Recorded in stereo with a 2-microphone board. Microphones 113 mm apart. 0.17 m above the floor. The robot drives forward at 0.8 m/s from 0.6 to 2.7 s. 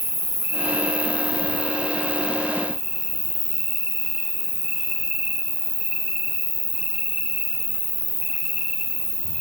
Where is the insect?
15° right (ahead or behind), 1.6 m; by 9.4 s 10° right (ahead or behind), 3 m.